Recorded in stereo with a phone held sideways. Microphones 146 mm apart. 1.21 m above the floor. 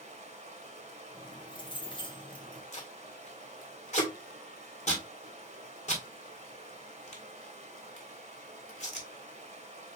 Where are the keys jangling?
35° left (ahead or behind), 1.0 m.